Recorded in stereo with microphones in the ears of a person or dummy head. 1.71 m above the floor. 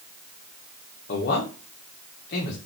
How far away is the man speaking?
About 1.5 m.